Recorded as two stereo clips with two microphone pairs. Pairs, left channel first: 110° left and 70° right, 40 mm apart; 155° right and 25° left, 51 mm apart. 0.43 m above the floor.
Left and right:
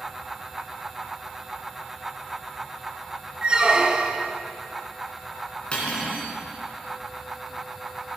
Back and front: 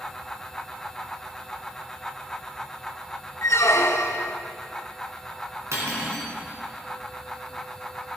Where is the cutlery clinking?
50° left, 3 m.